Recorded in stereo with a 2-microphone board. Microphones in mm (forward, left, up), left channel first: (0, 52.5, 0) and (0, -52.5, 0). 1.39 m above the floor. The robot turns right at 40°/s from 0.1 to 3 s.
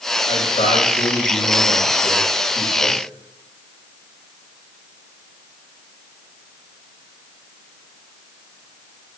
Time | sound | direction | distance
0.3 | a man speaking | 70° left | 8.5 m